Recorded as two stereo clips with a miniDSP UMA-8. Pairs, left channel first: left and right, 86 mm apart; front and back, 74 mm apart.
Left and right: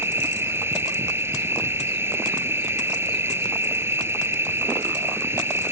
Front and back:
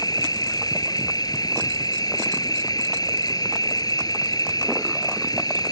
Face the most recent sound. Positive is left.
turn(degrees=-30)